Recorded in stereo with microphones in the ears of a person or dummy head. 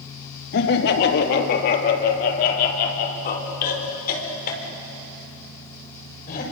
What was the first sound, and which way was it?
Laughter, 55° left (ahead or behind).